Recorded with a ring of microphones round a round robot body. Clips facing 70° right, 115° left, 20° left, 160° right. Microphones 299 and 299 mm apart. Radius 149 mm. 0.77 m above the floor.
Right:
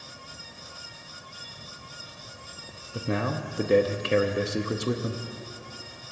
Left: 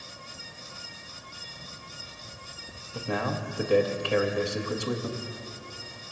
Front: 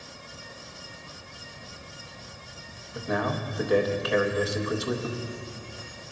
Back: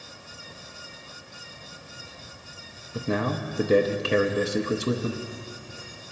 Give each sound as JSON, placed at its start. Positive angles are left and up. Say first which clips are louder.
{"t": 2.9, "sound": "a man speaking", "louder": "right 2 dB, back 2 dB", "azimuth_deg": -120, "distance_m": 0.6}